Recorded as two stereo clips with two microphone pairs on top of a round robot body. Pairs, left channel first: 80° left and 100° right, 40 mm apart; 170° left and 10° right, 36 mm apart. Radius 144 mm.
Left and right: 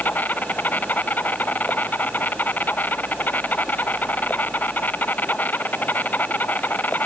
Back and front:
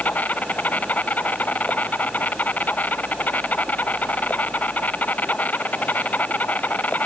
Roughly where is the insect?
Behind left.